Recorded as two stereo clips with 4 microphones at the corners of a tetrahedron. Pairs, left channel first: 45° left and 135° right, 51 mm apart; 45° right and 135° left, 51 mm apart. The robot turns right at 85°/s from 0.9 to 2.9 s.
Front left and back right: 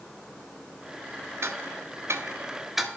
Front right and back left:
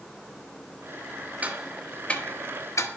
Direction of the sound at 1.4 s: 165° right.